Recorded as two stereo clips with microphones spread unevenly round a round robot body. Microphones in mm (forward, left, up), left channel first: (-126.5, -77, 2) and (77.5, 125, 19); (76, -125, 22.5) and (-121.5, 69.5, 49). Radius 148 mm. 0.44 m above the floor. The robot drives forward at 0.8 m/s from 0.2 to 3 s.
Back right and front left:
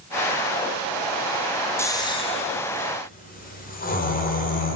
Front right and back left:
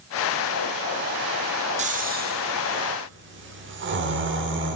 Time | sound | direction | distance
1.8 | snoring | 165° left | 1.2 m